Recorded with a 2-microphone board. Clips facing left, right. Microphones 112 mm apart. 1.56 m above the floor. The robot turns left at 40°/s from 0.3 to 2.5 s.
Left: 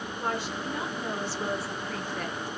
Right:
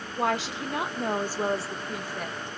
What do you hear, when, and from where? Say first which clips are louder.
0.2 s a woman speaking: right 5 dB; 100° right, 0.7 m; by 2.5 s 175° left, 0.7 m